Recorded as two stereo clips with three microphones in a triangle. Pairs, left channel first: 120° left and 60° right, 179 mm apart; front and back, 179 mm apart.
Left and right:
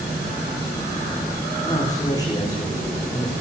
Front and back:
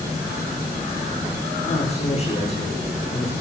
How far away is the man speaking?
About 9.5 m.